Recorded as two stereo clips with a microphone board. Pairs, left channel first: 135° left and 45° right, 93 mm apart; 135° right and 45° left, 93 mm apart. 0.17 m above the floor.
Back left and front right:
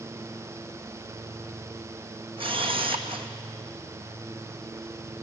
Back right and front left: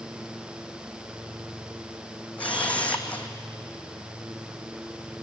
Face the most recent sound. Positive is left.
turn(degrees=-60)